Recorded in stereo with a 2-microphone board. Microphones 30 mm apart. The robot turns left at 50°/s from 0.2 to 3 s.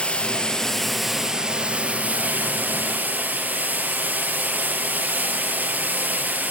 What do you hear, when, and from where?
0.0 s running water: 40° left, 4.5 m; by 6.5 s 100° right, 4.5 m